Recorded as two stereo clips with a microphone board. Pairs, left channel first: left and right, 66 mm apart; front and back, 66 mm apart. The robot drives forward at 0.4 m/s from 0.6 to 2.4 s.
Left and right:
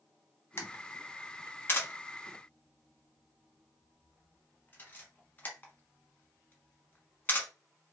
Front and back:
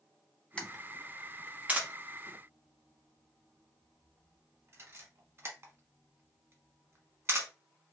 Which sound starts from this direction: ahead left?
A camera shutter, at 0.6 s.